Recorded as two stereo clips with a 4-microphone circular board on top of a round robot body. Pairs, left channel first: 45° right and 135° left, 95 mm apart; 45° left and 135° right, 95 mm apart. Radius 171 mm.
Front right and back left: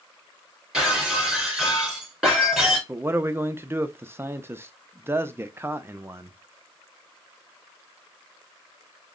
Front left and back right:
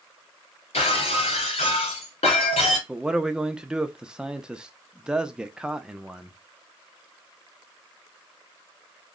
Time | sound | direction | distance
0.7 | breaking glass | 50° left | 1.5 m
2.9 | a man speaking | 155° left | 0.7 m